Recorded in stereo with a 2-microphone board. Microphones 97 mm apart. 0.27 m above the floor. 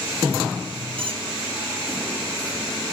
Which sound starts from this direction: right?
A squeak, at 1.0 s.